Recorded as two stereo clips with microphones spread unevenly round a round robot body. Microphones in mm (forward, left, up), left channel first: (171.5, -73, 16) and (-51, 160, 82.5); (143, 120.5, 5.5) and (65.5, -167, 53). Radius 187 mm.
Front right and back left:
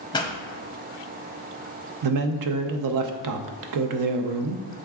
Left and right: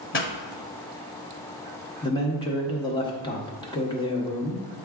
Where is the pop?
25° left, 1.3 m.